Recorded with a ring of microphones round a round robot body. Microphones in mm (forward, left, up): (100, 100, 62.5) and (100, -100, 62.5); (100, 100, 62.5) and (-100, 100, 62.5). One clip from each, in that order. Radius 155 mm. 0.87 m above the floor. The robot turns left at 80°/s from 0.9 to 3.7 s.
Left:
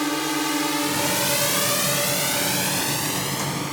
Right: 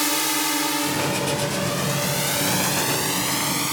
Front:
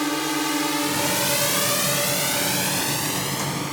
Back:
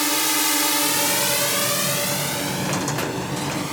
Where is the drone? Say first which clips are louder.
Right 1 dB, back 3 dB; 135° right; by 3.7 s 90° right.